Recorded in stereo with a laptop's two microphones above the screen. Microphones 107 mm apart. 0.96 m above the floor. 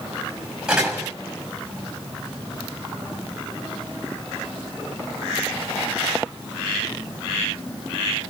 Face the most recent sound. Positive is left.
turn(degrees=-10)  # may be behind; listen again after turning